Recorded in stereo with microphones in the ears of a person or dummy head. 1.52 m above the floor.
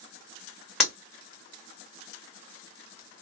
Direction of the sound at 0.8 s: Centre (ahead or behind).